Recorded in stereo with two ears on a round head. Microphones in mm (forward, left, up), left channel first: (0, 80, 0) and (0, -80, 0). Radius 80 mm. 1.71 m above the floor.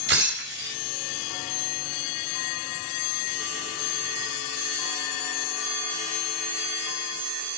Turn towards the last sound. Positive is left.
turn(degrees=-70)  # may be behind; listen again after turning